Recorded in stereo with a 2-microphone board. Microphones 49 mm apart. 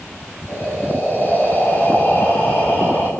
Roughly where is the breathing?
Left.